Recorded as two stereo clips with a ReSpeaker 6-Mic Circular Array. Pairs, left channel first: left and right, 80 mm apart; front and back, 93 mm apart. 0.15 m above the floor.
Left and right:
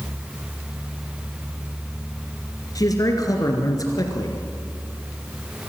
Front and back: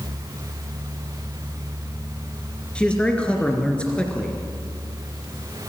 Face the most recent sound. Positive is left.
turn(degrees=75)